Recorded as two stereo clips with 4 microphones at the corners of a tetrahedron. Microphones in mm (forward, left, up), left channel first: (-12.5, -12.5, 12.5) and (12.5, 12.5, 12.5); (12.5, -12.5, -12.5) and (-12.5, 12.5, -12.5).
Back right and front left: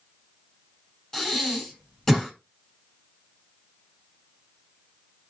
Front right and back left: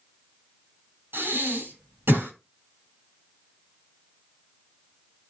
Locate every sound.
1.1 s breathing: 150° left, 7.5 m